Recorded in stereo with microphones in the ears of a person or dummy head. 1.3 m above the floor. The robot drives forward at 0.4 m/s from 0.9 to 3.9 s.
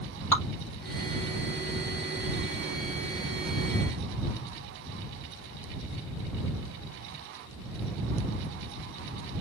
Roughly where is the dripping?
Centre.